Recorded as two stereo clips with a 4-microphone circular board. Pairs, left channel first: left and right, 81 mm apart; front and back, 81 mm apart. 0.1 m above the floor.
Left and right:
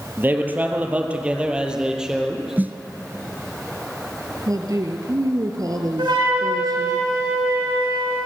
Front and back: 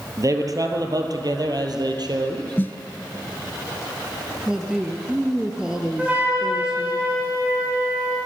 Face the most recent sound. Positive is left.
turn(degrees=-110)